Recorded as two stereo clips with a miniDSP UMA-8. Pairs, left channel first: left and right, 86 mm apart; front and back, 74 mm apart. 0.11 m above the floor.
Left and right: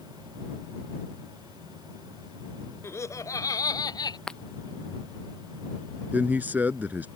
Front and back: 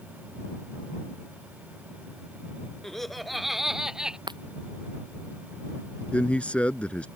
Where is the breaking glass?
170° left.